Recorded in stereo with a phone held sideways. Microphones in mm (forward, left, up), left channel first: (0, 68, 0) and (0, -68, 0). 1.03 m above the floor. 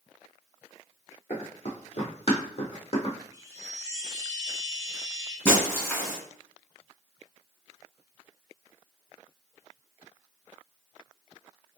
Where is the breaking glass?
15° left (ahead or behind), 1.6 m.